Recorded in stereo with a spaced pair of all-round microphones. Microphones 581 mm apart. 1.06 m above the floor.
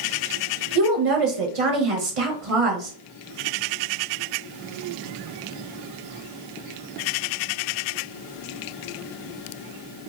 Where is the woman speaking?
65° right (ahead or behind), 0.8 m.